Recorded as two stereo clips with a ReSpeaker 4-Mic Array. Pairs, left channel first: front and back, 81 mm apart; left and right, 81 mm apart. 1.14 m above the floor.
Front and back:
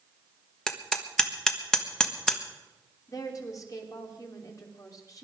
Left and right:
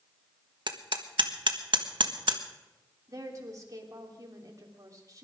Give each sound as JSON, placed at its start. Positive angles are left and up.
{"t": 0.7, "sound": "hammering", "azimuth_deg": -80, "distance_m": 1.3}
{"t": 3.1, "sound": "a woman speaking", "azimuth_deg": -40, "distance_m": 3.0}